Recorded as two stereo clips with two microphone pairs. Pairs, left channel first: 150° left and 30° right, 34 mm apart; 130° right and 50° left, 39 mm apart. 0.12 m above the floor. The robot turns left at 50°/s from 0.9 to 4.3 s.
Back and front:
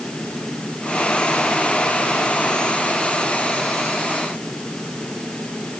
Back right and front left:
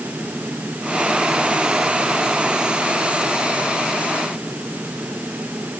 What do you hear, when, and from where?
Only background noise.